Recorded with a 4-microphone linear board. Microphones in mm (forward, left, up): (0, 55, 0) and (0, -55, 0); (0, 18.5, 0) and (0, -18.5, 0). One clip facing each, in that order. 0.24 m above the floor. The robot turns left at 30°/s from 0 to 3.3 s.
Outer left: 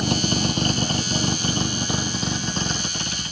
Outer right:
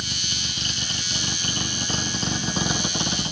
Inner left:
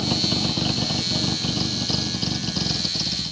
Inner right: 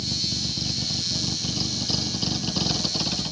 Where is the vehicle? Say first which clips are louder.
Outer left 14 dB, inner left 6 dB; 70° left; by 3.3 s 30° right.